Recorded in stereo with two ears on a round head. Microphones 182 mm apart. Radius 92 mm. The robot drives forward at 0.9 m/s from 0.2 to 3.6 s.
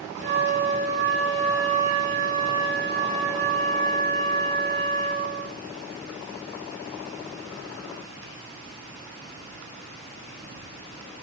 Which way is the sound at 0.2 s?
30° right (ahead or behind).